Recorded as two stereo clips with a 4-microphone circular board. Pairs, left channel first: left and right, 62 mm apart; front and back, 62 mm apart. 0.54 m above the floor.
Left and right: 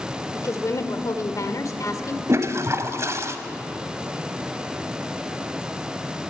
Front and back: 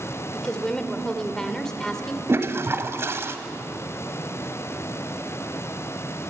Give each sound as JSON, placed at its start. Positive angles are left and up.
{"t": 0.3, "sound": "a woman speaking", "azimuth_deg": 80, "distance_m": 2.0}
{"t": 2.3, "sound": "a toilet flushing", "azimuth_deg": -135, "distance_m": 1.4}